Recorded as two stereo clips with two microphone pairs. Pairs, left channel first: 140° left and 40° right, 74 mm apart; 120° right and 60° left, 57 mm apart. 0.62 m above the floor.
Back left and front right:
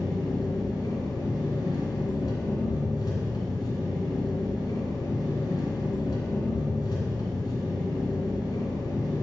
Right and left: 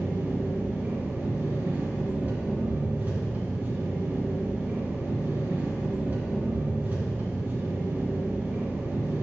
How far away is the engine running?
About 1.8 m.